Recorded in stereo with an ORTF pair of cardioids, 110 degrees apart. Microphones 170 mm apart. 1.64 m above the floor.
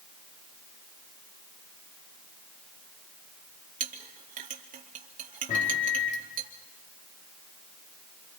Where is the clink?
55° right, 2.5 m.